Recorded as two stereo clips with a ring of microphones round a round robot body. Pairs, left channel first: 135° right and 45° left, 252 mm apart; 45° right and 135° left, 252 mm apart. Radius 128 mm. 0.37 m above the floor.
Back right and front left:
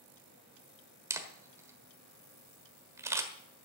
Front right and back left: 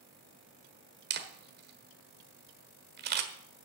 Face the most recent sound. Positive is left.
turn(degrees=120)